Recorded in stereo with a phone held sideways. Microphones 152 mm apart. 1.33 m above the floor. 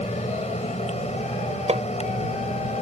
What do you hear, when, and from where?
0.0 s a fan: 45° left (ahead or behind)
1.7 s hammering: 45° right (ahead or behind)